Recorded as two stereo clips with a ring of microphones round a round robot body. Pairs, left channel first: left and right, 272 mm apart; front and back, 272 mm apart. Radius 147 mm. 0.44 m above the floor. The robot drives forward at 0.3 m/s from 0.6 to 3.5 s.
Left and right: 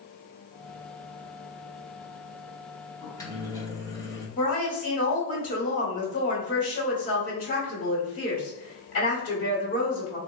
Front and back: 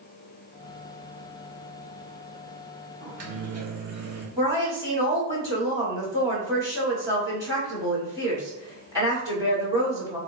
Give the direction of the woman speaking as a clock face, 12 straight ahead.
8 o'clock.